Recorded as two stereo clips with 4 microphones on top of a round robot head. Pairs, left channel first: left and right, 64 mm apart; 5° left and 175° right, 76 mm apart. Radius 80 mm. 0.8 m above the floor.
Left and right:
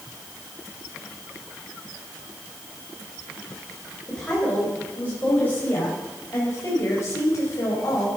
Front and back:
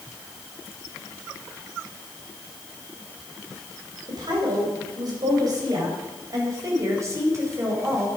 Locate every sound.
4.1 s a woman speaking: 170° left, 4.5 m; by 8.1 s 135° left, 5 m